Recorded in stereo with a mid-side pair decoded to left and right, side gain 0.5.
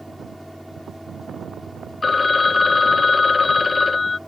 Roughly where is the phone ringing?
Ahead left.